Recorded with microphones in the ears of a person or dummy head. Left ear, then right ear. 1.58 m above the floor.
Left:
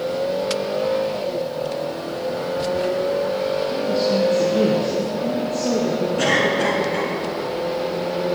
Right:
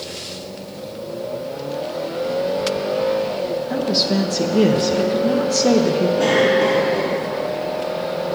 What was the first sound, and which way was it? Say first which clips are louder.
A woman speaking: even; 45° right (ahead or behind).